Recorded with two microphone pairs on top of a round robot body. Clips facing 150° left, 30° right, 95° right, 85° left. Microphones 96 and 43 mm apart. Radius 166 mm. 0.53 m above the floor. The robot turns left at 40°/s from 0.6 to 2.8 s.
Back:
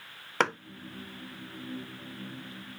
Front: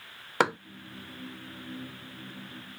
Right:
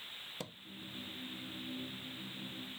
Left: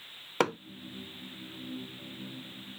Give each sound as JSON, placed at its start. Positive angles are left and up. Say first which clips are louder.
{"t": 0.4, "sound": "hammering", "louder": "front 2 dB, left 23 dB", "azimuth_deg": 55}